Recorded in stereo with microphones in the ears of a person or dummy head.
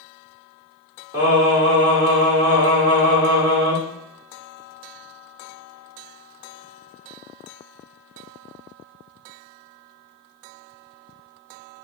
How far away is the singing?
About 1.5 m.